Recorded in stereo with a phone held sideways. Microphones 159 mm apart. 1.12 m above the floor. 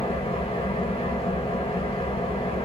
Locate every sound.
0.0 s an engine running: 40° left (ahead or behind), 1.2 m